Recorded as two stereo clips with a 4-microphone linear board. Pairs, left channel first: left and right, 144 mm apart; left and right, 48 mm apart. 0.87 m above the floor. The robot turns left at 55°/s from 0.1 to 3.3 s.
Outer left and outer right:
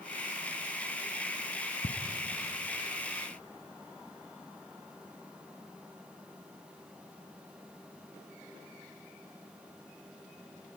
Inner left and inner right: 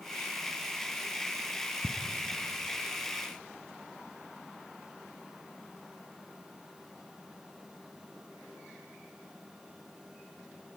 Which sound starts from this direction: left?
Ticking, at 1.8 s.